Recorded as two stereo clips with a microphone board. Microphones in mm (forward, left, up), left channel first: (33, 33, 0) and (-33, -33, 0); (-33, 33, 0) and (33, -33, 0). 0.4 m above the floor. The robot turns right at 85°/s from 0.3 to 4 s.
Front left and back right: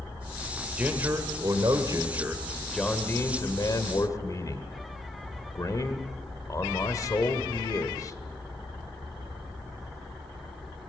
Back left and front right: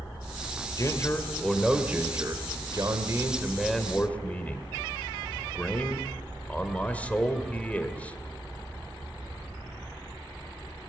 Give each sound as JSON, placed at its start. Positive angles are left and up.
{"t": 0.8, "sound": "a man speaking", "azimuth_deg": 155, "distance_m": 1.9}